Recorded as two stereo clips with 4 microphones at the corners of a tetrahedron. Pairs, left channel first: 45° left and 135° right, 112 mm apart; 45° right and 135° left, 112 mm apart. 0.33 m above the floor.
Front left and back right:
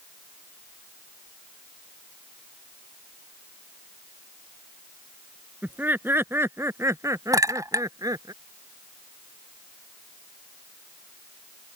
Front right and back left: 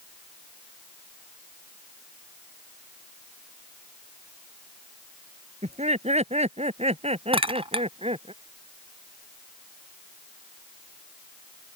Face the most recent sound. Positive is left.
turn(degrees=165)